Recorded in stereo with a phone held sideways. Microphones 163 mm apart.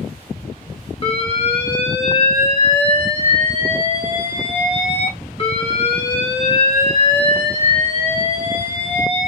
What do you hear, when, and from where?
1.0 s an alarm: 35° left (ahead or behind), 1.8 m